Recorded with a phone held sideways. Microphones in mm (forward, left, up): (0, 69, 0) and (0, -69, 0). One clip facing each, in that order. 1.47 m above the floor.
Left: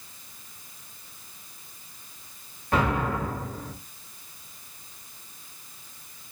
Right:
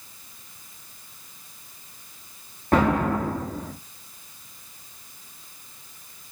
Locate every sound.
2.7 s an explosion: 45° right (ahead or behind), 1.5 m